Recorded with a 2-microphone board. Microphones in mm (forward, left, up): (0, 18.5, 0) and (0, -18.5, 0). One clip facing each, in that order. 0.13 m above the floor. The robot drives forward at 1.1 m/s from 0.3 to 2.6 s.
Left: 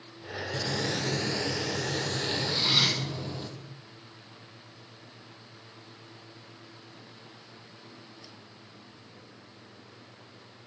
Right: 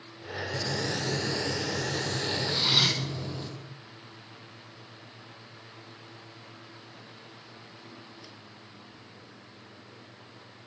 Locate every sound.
0.5 s frying: 40° left (ahead or behind), 0.9 m; by 3.5 s 10° left (ahead or behind), 2.5 m
2.5 s cutlery clinking: 15° right (ahead or behind), 2.5 m